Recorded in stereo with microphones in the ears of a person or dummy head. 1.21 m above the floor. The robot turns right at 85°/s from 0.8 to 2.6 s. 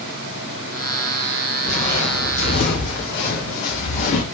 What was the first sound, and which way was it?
Footsteps, 5° left (ahead or behind).